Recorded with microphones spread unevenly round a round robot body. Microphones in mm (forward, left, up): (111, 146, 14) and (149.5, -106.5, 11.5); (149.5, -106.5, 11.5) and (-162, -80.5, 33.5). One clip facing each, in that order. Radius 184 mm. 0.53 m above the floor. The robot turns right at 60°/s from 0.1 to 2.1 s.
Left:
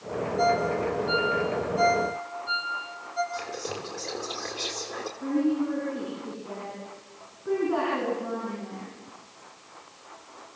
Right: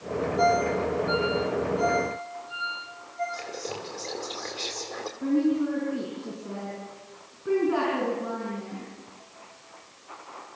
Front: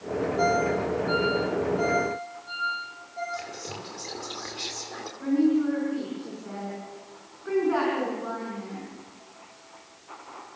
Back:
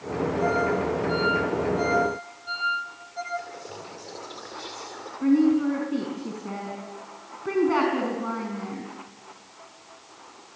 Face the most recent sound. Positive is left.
turn(degrees=-150)